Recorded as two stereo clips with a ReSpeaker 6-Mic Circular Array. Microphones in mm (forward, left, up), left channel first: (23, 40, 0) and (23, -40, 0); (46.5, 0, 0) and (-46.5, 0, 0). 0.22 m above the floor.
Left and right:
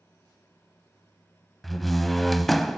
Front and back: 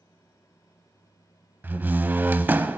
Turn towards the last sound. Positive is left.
turn(degrees=175)